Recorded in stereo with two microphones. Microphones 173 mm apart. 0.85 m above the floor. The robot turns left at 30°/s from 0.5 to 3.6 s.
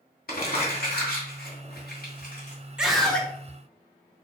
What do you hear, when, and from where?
0.3 s crumpling: 65° left (ahead or behind), 2 m; by 2.7 s 45° left (ahead or behind), 2 m
2.8 s a scream: 5° right (ahead or behind), 1.2 m; by 3.3 s 10° left (ahead or behind), 1.2 m